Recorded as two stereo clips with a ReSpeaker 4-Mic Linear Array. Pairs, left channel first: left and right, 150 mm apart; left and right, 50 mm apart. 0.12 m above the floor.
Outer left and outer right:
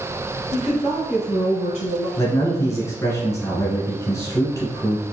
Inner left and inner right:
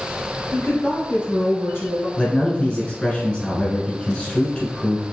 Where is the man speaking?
20° left (ahead or behind), 1.3 m.